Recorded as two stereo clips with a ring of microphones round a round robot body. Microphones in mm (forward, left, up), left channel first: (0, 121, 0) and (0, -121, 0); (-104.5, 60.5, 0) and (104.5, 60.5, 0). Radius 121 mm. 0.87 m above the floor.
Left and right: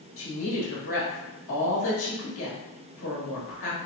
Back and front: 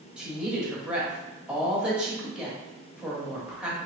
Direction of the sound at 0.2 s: 85° left.